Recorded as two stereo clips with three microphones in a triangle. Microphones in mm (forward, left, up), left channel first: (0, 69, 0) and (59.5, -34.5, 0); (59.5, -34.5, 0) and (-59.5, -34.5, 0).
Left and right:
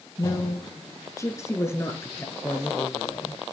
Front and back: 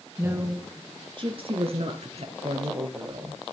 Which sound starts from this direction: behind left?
A woman speaking, at 0.2 s.